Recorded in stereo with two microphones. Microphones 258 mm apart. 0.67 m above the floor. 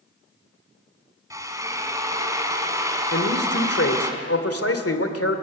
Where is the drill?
15° right (ahead or behind), 2 m.